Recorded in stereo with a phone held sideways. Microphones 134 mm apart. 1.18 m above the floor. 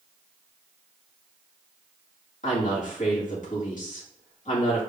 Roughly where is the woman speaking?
Left.